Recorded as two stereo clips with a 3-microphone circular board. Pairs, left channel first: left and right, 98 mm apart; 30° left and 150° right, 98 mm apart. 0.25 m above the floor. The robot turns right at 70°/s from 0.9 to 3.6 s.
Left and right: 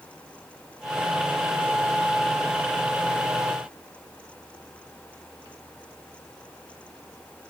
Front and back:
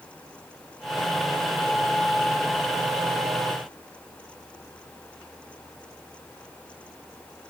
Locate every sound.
Only background noise.